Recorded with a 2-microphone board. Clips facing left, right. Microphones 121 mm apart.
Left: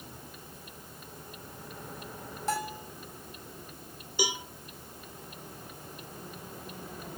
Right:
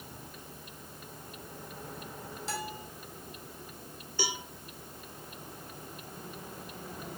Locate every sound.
2.5 s a bell: 50° left (ahead or behind), 2 m
4.2 s a cowbell: 15° left (ahead or behind), 1.2 m